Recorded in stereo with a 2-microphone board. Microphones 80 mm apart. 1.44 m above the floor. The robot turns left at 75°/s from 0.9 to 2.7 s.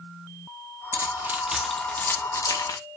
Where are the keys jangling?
40° right (ahead or behind), 0.7 m; by 2.8 s 50° left (ahead or behind), 0.7 m.